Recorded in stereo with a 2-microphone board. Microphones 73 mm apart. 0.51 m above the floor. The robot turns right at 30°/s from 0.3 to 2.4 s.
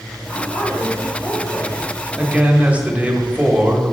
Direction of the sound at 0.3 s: 15° left.